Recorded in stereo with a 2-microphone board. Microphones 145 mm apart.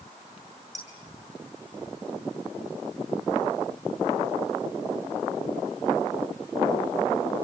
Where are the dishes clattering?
25° left (ahead or behind), 7.5 m.